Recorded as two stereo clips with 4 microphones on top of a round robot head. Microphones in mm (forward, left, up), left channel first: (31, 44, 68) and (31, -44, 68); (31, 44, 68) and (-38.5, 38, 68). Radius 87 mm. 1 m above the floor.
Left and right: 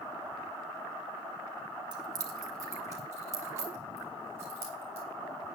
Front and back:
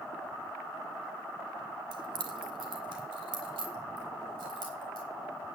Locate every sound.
1.9 s keys jangling: 140° right, 0.8 m; by 5.0 s 155° right, 4.5 m